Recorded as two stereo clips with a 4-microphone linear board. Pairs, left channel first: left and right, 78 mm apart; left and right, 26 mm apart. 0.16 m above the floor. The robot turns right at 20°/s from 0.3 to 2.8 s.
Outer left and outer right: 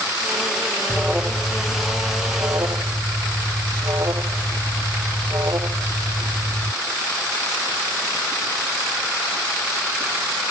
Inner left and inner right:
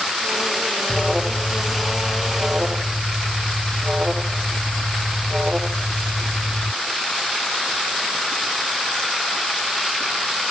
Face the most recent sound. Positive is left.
turn(degrees=-125)